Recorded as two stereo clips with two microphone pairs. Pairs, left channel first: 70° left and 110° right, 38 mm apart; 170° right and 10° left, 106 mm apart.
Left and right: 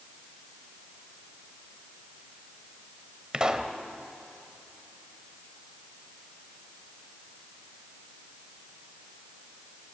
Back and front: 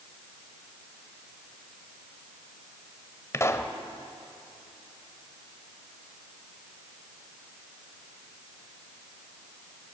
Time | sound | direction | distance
3.3 | a pop | 155° right | 1.2 m